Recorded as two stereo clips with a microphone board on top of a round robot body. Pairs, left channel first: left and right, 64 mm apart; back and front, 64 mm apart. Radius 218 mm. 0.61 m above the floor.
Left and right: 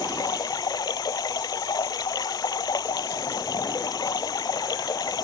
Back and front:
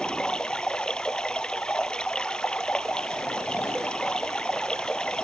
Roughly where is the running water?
Left.